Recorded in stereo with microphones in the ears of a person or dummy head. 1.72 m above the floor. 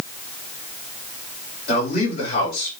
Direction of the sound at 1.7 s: 40° left (ahead or behind).